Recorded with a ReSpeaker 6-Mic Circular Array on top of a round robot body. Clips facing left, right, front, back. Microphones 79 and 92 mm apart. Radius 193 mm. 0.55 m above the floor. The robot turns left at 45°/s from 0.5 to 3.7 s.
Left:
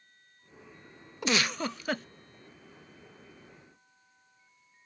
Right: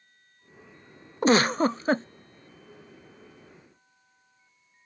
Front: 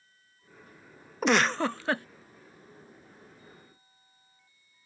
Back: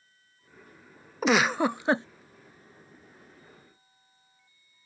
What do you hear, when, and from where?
1.2 s a giggle: 90° right; by 2.1 s 130° right